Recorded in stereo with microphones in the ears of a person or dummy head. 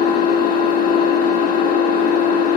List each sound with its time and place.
0.0 s an engine running: 50° left (ahead or behind), 1.8 m